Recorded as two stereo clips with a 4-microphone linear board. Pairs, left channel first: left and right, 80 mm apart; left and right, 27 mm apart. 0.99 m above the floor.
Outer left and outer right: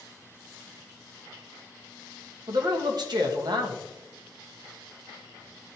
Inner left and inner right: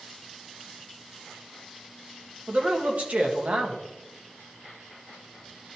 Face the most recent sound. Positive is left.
turn(degrees=-60)  # may be behind; listen again after turning